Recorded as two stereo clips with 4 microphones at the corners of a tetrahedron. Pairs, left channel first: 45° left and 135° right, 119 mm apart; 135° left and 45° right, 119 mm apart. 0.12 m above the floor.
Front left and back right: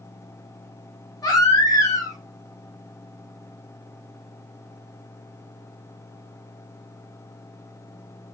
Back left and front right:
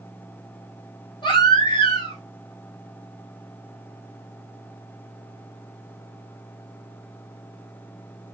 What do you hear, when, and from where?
1.2 s a baby crying: 95° left, 1.8 m